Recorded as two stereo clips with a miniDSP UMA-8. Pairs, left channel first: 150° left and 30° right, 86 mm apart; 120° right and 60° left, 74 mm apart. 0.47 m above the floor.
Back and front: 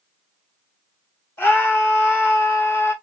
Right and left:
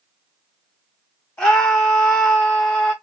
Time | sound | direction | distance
1.4 | a scream | 175° left | 1.0 m